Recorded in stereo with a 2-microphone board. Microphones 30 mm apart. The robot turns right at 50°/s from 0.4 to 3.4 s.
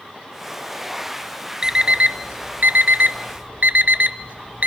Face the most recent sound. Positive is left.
turn(degrees=-55)  # may be behind; listen again after turning